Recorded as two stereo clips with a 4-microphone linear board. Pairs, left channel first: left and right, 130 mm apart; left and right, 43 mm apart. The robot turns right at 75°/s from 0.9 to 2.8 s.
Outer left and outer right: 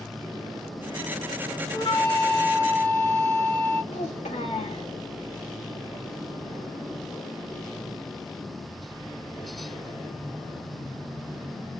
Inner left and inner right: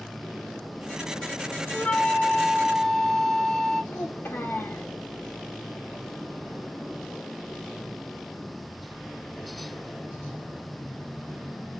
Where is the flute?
75° left, 0.7 m; by 3.8 s 155° left, 0.7 m.